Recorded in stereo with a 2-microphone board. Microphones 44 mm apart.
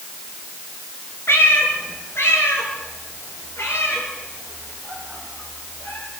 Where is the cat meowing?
60° left (ahead or behind), 4.5 m; by 6.0 s 65° left (ahead or behind), 7.5 m.